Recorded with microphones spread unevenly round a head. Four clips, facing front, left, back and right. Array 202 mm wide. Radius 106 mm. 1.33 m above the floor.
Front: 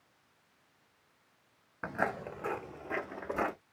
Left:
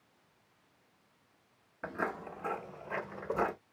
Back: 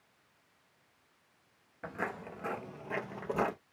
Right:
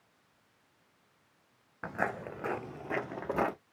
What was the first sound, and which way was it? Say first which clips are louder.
Footsteps: right 2 dB, front 5 dB; 35° right.